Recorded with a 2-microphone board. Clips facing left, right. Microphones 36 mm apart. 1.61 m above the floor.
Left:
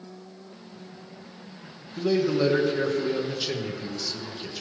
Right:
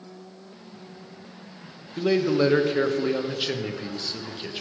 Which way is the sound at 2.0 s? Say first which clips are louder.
Right 2 dB; 35° right (ahead or behind).